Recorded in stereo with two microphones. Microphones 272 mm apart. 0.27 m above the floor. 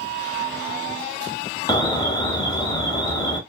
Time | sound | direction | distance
1.7 | an alarm | 15° left (ahead or behind) | 0.6 m